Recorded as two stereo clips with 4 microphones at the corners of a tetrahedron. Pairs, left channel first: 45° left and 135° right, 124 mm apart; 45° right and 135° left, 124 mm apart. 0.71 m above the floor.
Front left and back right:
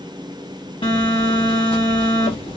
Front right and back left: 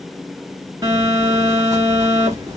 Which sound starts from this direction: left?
A phone buzzing, at 0.8 s.